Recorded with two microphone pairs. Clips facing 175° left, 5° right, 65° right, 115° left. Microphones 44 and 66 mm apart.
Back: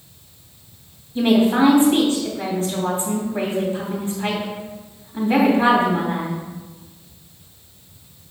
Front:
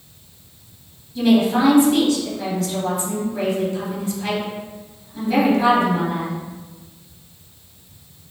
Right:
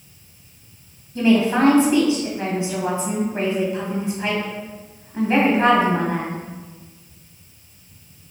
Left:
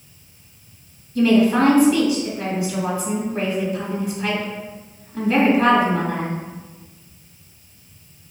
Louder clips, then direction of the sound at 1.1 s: Even, left 1 dB; 130° right.